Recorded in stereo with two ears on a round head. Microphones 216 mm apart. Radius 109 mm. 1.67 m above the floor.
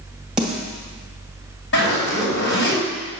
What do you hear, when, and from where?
0.4 s a snare drum: 5° right (ahead or behind), 1.8 m
1.7 s a zipper: 50° left (ahead or behind), 4.5 m